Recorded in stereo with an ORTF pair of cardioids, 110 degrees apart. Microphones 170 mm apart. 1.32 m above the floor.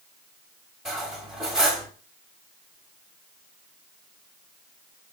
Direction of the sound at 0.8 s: 5° right.